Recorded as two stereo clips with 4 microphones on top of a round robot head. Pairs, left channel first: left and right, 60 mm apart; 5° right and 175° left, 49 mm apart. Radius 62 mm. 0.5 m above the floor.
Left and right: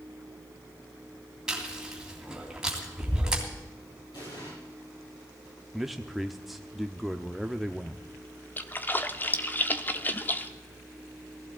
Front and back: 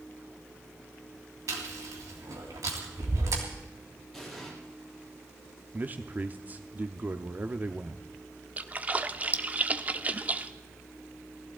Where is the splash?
130° left, 0.8 m.